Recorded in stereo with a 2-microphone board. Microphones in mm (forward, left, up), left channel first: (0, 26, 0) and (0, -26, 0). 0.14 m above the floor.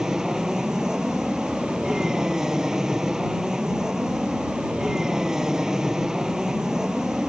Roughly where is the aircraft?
Centre.